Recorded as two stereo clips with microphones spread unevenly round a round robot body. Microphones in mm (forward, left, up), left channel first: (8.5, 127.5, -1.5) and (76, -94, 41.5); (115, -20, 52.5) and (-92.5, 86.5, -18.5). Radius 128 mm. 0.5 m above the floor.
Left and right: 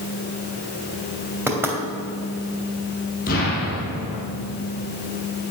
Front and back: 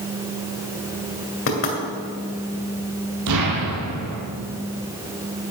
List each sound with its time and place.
1.5 s knocking: 10° left, 3 m
3.3 s an explosion: 165° left, 3 m